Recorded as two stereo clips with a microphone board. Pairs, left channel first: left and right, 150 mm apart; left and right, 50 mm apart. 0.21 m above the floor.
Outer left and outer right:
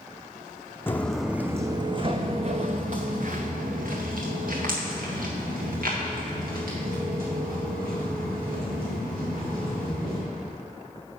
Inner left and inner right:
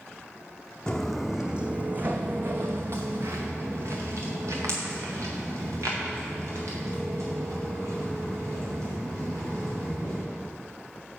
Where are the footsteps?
15° left (ahead or behind), 0.6 m; by 10.2 s 80° right, 5 m.